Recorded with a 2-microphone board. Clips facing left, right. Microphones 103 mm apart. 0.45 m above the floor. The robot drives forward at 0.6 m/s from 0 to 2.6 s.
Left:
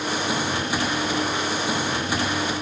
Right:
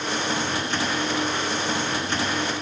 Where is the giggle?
No giggle in this recording.